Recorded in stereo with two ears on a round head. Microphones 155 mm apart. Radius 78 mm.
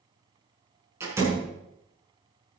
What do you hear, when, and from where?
1.0 s a door slam: 15° right (ahead or behind), 7 m